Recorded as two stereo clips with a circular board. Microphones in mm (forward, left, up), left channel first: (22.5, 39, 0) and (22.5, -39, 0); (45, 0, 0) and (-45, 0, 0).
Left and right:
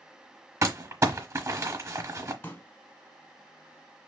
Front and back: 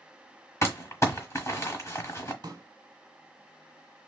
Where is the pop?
145° left, 0.9 m.